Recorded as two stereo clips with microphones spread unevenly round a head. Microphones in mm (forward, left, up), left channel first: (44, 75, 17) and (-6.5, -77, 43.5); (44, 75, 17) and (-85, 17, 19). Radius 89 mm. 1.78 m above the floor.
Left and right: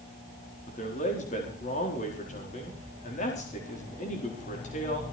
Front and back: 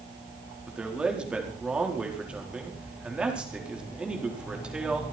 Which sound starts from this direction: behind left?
A man speaking, at 0.7 s.